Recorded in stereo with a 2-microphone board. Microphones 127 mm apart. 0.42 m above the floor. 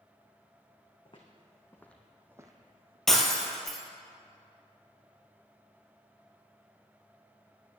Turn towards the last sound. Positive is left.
turn(degrees=5)  # may be behind; listen again after turning